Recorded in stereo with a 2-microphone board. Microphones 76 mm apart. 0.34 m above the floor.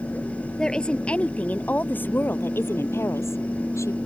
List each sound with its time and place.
0.6 s a woman speaking: 10° left (ahead or behind); by 4.0 s 40° left (ahead or behind)